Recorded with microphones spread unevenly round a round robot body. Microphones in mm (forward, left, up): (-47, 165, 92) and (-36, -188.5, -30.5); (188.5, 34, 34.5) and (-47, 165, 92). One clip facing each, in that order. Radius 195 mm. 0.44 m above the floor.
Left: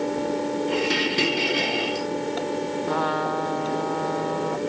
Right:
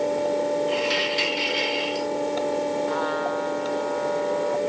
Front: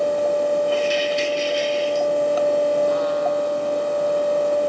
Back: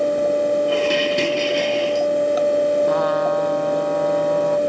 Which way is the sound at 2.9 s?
125° left.